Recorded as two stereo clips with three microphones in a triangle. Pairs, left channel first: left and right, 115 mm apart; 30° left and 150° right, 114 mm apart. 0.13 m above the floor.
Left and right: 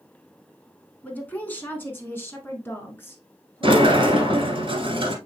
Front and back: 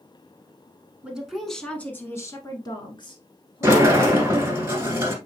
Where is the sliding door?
95° right, 1.3 m.